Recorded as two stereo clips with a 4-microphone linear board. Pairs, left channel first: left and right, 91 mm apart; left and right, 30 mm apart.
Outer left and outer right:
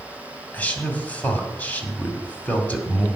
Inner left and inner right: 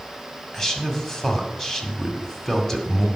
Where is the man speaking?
15° left (ahead or behind), 2 m.